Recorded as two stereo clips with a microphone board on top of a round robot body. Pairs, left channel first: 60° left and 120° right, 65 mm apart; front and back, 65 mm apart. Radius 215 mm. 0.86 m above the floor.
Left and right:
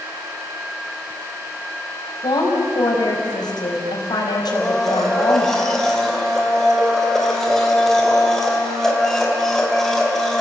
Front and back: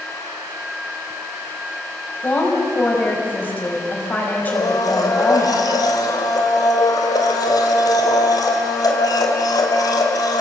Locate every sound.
2.2 s a woman speaking: 60° left, 5.5 m
4.5 s a blender: 25° right, 3 m